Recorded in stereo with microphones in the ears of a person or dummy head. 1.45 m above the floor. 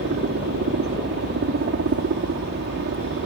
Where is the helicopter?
55° right (ahead or behind).